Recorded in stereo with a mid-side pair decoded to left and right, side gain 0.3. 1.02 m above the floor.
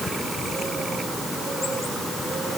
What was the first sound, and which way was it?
Only background noise.